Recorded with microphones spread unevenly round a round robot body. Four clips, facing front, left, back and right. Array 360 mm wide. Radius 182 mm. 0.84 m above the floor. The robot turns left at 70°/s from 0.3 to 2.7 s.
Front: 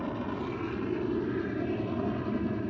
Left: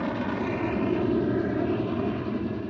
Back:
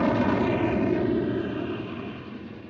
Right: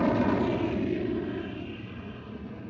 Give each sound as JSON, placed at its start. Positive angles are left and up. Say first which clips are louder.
{"t": 0.0, "sound": "an aircraft", "louder": "right 4 dB, back 11 dB", "azimuth_deg": -170}